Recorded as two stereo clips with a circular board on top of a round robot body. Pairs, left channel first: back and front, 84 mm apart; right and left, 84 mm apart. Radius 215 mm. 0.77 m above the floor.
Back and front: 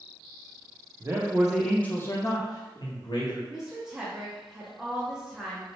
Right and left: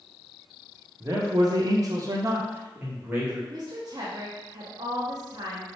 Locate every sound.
1.0 s a man speaking: 45° left, 0.7 m; by 3.4 s 165° left, 1.3 m
3.5 s a woman speaking: 80° left, 0.7 m